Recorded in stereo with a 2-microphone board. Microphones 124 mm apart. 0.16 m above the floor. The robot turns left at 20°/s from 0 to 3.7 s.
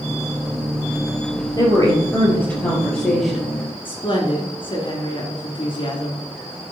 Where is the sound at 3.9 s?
45° left (ahead or behind), 2 m.